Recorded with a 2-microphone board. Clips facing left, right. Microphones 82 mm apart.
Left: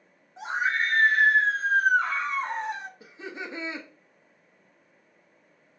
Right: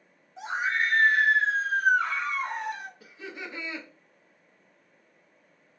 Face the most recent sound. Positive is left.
turn(degrees=20)  # may be behind; listen again after turning